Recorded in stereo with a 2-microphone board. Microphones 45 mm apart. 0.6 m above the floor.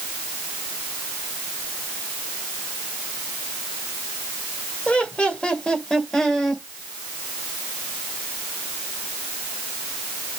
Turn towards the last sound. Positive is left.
turn(degrees=5)  # may be behind; listen again after turning